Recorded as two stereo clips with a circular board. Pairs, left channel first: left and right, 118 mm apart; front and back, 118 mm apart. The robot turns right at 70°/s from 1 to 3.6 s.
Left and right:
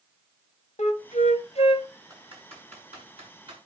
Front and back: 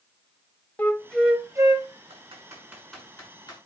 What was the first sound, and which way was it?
A flute, 75° left.